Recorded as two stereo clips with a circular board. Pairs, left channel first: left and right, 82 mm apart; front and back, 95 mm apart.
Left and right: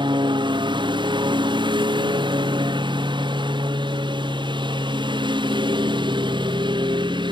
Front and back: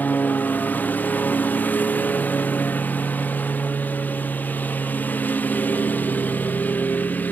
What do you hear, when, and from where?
0.0 s a lawn mower: 75° right